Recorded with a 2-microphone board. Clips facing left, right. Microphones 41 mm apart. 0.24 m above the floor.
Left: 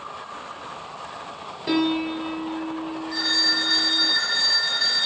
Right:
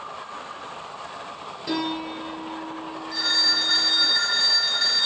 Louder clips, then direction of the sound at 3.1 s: Even; centre (ahead or behind).